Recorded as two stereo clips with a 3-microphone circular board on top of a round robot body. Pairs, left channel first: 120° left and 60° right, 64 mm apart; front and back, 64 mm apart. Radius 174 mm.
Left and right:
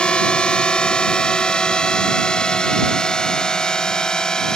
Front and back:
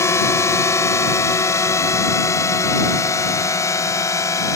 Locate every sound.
0.0 s a drone: 45° left; by 4.6 s 40° left